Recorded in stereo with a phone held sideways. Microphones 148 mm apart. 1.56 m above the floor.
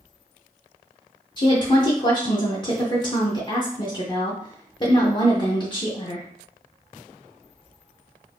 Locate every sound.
1.4 s a woman speaking: 30° left (ahead or behind), 0.6 m